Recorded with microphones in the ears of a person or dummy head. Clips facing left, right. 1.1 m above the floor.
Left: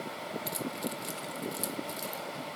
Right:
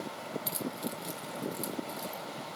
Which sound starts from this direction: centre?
Keys jangling, at 0.5 s.